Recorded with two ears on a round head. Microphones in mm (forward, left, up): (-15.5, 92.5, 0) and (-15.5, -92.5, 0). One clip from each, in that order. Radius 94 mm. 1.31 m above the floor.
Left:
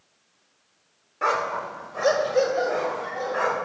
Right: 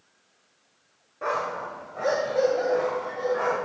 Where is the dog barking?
55° left (ahead or behind), 1.3 m; by 3.5 s 70° left (ahead or behind), 3.5 m.